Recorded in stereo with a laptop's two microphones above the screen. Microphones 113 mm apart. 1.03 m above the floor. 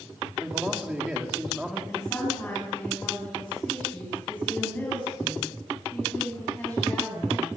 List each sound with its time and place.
0.4 s a man speaking: 10° right (ahead or behind), 2.5 m
1.9 s a woman speaking: 15° left (ahead or behind), 8 m